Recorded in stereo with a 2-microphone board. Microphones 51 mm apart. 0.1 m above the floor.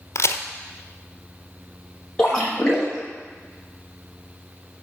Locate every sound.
0.1 s a crack: 60° left (ahead or behind), 1.2 m
2.2 s a splash: 15° left (ahead or behind), 5 m